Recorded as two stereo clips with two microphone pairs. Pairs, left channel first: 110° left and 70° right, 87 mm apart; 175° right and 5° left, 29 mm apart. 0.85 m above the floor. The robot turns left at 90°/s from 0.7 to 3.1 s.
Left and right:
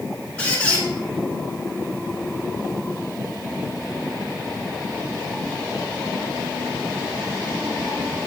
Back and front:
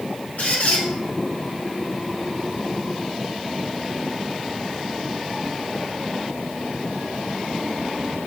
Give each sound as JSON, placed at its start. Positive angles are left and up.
{"t": 0.4, "sound": "a squeak", "azimuth_deg": -175, "distance_m": 1.6}